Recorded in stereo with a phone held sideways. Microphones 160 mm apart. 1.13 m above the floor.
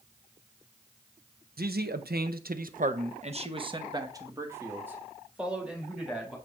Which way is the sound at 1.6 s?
75° right (ahead or behind).